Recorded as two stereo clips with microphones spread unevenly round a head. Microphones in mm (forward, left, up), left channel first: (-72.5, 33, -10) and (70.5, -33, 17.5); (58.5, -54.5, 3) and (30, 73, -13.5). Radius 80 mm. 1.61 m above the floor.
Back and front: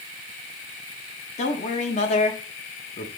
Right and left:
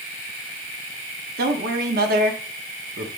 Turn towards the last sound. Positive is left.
turn(degrees=105)